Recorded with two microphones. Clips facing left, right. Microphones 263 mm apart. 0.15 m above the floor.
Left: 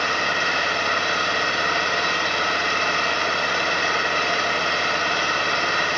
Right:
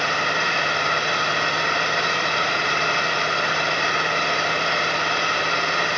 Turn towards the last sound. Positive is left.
turn(degrees=5)  # may be behind; listen again after turning